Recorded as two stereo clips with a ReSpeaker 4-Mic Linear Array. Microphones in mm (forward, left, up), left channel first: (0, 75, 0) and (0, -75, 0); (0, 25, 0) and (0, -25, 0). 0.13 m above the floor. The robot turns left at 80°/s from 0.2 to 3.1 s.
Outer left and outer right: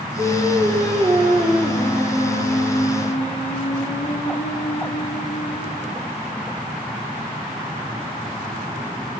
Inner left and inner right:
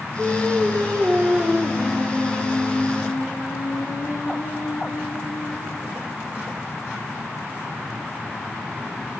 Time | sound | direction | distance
0.2 | singing | 75° right | 2 m